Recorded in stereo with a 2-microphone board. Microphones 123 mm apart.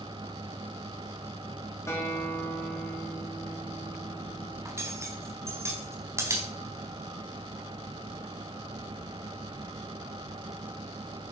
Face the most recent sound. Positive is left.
turn(degrees=-20)  # may be behind; listen again after turning